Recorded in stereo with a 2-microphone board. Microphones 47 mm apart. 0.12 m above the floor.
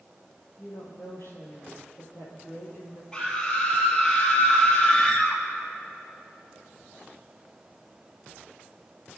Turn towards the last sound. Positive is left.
turn(degrees=15)  # may be behind; listen again after turning